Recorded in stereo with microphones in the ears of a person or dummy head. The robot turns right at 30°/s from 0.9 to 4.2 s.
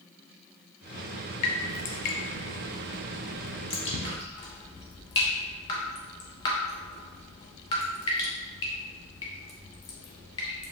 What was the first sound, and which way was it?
Dripping, 40° left (ahead or behind).